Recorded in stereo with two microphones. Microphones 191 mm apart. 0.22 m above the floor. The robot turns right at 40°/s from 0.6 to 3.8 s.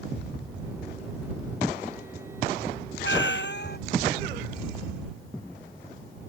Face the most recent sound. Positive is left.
turn(degrees=120)